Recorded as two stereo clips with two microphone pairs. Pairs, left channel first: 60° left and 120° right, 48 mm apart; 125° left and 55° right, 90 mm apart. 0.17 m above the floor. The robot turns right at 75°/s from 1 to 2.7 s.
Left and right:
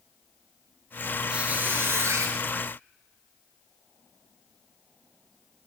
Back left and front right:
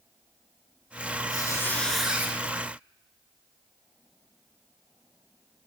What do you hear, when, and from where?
1.3 s a squeak: 165° left, 0.7 m; by 2.3 s 115° right, 0.7 m